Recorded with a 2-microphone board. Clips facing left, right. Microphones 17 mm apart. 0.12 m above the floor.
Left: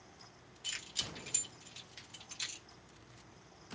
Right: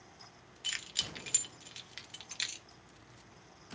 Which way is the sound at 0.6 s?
25° right (ahead or behind).